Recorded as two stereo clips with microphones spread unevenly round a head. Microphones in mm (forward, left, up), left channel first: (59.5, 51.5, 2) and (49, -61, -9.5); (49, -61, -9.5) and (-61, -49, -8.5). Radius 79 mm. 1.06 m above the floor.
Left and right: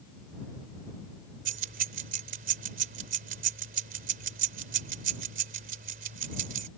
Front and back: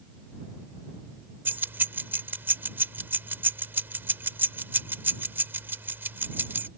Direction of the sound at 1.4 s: 115° right.